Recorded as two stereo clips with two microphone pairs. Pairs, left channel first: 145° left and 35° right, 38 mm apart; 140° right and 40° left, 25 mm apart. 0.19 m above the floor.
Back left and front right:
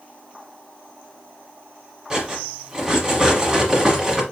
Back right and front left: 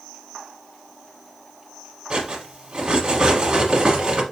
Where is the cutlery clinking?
20° left, 1.1 m.